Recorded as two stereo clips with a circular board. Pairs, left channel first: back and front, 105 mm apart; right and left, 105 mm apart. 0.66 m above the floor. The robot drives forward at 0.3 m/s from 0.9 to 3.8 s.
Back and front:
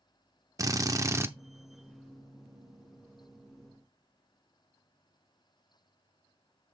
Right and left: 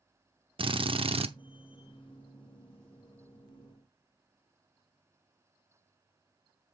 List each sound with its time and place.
0.6 s a drill: 60° left, 0.7 m; by 1.3 s 65° left, 0.6 m